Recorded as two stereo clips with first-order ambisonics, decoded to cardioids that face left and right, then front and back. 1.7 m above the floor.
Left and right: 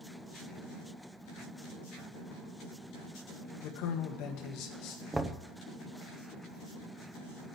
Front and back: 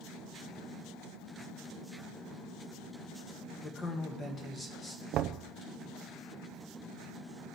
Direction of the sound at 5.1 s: 170° right.